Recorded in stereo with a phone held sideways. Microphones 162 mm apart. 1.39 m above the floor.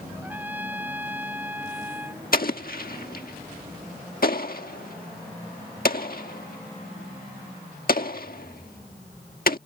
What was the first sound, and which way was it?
A trumpet, 10° right (ahead or behind).